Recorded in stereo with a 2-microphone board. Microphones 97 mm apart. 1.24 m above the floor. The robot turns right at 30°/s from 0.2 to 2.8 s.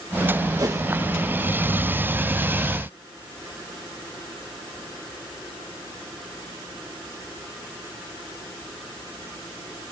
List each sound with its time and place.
0.6 s a whoosh: 40° right (ahead or behind); by 0.8 s 35° right (ahead or behind)